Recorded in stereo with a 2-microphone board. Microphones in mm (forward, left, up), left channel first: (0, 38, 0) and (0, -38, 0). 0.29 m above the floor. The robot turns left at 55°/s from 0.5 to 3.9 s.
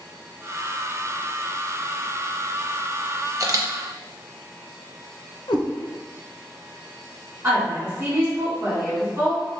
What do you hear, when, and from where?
3.4 s a camera shutter: 45° right (ahead or behind), 0.5 m
5.5 s a cat meowing: 85° left, 0.6 m
7.4 s a woman speaking: 35° right (ahead or behind), 1.7 m